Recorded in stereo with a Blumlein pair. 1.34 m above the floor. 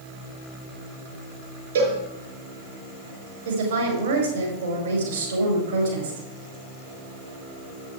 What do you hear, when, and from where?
1.8 s a cowbell: 65° right, 5 m
3.5 s a woman speaking: 65° right, 5 m